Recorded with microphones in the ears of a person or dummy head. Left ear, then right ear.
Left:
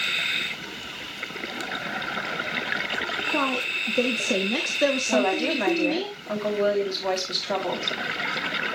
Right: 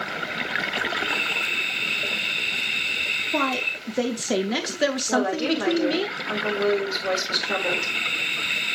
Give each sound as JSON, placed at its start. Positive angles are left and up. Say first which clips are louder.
{"t": 3.3, "sound": "a woman speaking", "louder": "right 1 dB", "side_deg": -15, "distance_m": 0.5}
{"t": 5.1, "sound": "a woman speaking", "louder": "left 1 dB", "side_deg": 20, "distance_m": 2.5}